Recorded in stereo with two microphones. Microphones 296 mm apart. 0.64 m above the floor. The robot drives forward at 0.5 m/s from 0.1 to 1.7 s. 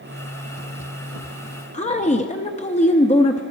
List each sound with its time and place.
1.7 s a woman speaking: 25° left (ahead or behind), 0.6 m